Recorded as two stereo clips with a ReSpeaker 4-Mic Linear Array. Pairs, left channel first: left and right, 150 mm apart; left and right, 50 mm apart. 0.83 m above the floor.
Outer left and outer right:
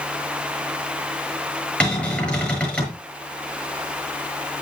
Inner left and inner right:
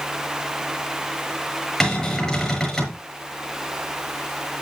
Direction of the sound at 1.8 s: 10° left (ahead or behind).